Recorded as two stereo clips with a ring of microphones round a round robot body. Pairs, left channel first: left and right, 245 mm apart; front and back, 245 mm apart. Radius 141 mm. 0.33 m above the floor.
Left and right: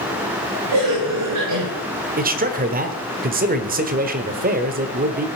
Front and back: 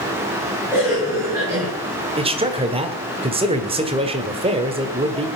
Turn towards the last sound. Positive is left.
turn(degrees=-125)